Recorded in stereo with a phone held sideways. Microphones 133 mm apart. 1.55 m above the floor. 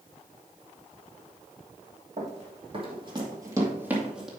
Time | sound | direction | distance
2.2 | running footsteps | 55° right (ahead or behind) | 3 m